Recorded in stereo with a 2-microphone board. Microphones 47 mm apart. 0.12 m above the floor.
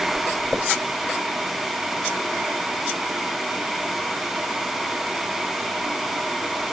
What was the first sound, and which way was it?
Only background noise.